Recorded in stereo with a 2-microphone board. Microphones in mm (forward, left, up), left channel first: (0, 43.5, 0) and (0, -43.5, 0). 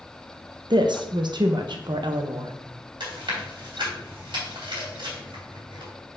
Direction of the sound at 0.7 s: 65° right (ahead or behind).